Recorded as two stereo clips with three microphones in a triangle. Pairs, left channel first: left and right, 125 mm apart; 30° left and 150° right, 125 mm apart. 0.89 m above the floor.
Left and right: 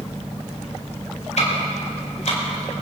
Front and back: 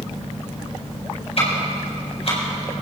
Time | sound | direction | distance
1.4 | ticking | 65° left | 4.5 m